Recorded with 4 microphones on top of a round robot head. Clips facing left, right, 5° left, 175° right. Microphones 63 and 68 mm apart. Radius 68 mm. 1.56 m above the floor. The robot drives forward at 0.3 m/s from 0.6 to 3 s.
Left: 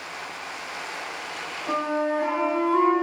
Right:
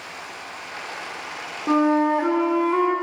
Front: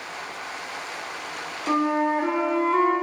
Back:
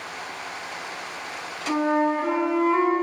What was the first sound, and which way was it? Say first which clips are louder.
A flute: right 7 dB, even; 70° right.